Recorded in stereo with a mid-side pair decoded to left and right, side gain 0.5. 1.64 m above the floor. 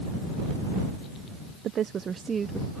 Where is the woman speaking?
60° right; by 2.8 s 25° right.